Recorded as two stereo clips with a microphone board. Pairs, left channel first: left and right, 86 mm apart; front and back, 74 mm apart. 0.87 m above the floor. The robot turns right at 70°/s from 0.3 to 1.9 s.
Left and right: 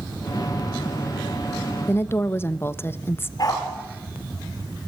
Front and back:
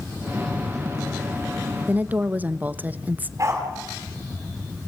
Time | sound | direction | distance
1.9 | a woman speaking | 130° left | 0.9 m
3.4 | a dog barking | 135° left | 7.5 m